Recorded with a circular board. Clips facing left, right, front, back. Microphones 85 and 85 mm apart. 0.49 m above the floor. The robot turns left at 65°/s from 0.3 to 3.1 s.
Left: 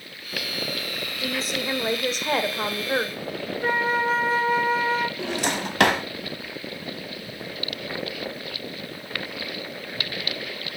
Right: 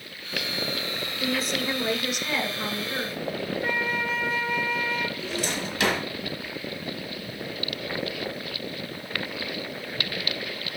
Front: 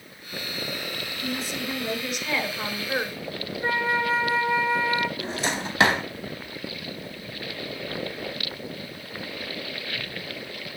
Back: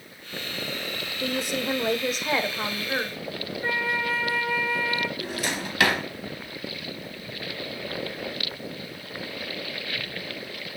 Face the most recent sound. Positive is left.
turn(degrees=65)